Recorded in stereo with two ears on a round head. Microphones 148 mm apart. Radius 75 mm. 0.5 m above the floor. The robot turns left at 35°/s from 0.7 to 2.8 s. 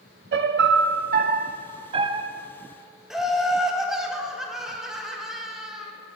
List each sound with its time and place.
0.3 s a piano: 95° right, 0.6 m; by 2.3 s 150° right, 0.6 m
3.1 s laughter: 5° right (ahead or behind), 1.1 m